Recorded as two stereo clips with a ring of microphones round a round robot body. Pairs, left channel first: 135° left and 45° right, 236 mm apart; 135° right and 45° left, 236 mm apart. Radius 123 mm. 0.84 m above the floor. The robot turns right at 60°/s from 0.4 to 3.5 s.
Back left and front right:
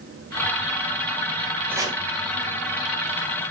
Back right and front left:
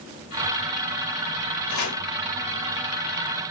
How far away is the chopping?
About 2.0 m.